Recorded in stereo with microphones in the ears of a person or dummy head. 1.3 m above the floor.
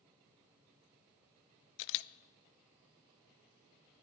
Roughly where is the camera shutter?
Left.